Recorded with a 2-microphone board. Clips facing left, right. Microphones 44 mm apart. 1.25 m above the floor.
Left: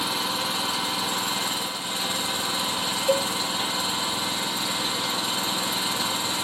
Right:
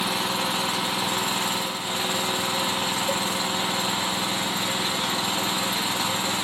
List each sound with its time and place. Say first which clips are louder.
0.0 s an engine running: right 2 dB; 45° right (ahead or behind), 1.4 m
3.1 s a cowbell: left 8 dB; 20° left (ahead or behind), 0.5 m